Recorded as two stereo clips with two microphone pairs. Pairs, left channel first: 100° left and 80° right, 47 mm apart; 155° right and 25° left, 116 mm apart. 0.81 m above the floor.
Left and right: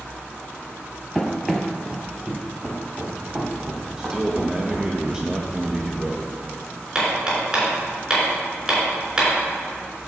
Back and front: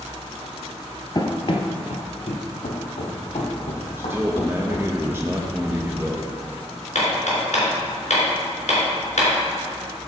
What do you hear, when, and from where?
1.1 s running footsteps: 175° left, 1.0 m; by 4.9 s 140° right, 3 m
4.0 s a man speaking: 20° right, 0.9 m
7.0 s hammering: 155° right, 3.5 m